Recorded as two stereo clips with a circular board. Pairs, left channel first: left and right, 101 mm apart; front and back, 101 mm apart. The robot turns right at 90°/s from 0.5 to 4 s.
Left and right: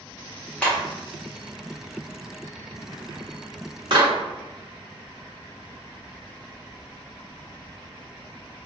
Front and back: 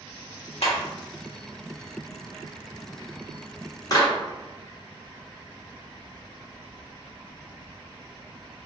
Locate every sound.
0.6 s a clap: 10° left, 1.3 m; by 4.1 s 45° right, 1.3 m